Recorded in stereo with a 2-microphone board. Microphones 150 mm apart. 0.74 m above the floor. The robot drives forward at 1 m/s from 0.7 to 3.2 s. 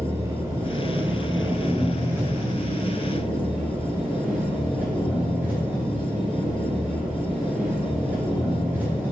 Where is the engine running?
20° right (ahead or behind), 2.5 m; by 9.1 s 10° right (ahead or behind), 5 m.